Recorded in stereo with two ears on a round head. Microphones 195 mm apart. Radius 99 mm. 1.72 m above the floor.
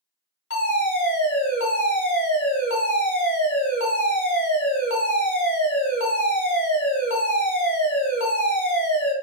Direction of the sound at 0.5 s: 65° left (ahead or behind).